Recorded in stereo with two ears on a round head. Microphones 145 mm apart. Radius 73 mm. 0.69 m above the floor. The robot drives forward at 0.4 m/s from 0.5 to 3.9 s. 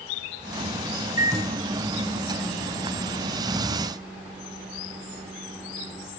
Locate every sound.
1.2 s a microwave: 20° right (ahead or behind), 0.6 m; by 6.1 s 10° right (ahead or behind), 1.5 m